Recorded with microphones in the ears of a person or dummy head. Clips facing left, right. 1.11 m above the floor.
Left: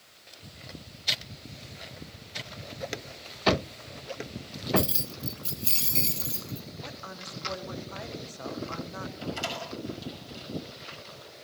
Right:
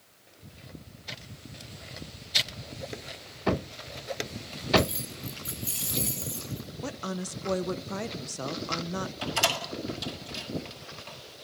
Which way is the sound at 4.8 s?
40° left (ahead or behind).